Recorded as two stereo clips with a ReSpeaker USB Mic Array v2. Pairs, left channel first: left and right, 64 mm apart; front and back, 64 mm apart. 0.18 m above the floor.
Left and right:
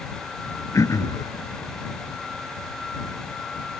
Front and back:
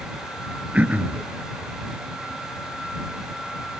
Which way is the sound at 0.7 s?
115° left.